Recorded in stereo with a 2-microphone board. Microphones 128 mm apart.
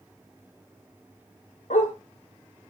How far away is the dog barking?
About 1.9 m.